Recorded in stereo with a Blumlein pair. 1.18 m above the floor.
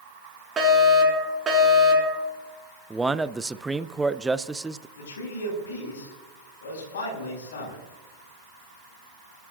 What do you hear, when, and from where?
0.6 s a fire alarm: 15° right, 4.5 m
2.9 s a man speaking: 5° right, 0.5 m
5.0 s a man speaking: 60° left, 5.5 m